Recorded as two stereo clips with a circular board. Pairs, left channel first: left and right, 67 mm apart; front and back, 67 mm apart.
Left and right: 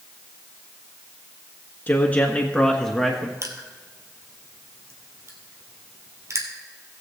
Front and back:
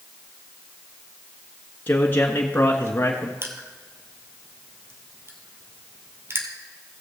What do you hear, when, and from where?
1.9 s a man speaking: 45° left, 1.4 m; by 3.3 s 10° right, 1.2 m
3.4 s crushing: 130° right, 1.5 m